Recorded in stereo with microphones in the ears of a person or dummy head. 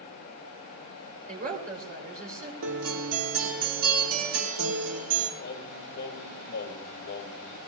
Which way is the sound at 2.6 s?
65° right (ahead or behind).